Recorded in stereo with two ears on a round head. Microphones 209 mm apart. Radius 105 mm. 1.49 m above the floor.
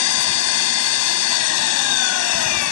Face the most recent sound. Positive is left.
turn(degrees=80)